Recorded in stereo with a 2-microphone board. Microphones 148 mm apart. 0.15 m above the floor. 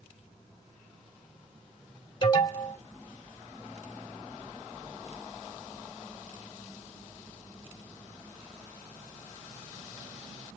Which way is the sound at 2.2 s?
35° left (ahead or behind).